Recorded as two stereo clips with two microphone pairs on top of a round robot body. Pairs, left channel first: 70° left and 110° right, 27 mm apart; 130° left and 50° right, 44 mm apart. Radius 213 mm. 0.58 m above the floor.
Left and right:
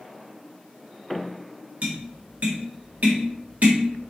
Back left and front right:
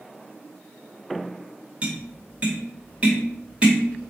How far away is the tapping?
About 1.7 m.